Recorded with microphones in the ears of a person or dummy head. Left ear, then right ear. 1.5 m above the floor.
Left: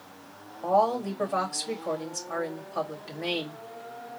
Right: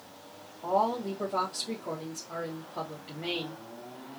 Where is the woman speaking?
55° left (ahead or behind), 2.5 m.